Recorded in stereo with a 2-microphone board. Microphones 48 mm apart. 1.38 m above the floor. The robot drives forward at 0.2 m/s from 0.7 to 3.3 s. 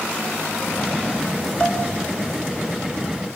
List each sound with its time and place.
1.6 s dishes clattering: 25° left (ahead or behind), 5.5 m